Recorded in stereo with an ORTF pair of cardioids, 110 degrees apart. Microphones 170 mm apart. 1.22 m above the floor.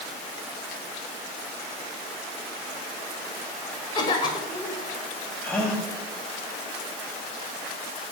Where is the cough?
25° left, 4.5 m.